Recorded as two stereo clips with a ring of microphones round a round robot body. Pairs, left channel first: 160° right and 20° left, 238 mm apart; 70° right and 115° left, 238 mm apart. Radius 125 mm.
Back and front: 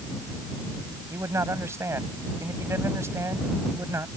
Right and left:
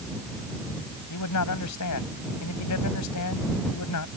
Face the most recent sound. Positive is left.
turn(degrees=-55)